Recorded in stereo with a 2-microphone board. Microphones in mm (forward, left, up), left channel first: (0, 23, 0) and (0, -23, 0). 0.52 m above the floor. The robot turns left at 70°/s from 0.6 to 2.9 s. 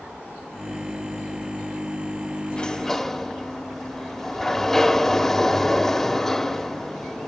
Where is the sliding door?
20° left (ahead or behind), 1.0 m; by 7.3 s 10° left (ahead or behind), 1.0 m.